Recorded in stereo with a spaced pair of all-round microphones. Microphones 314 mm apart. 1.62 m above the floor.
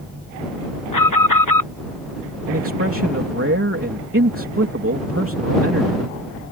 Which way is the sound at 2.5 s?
45° right (ahead or behind).